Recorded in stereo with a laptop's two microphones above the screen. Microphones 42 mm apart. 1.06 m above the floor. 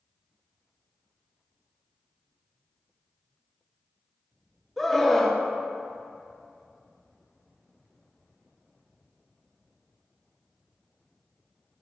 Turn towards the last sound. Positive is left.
turn(degrees=0)  # may be behind; listen again after turning